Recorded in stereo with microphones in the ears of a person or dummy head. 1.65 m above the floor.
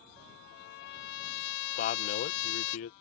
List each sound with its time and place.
0.2 s a trumpet: 60° left (ahead or behind)
1.8 s a man speaking: 50° left (ahead or behind)